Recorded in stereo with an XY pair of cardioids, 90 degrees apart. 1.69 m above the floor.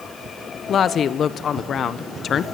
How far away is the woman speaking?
About 1.2 m.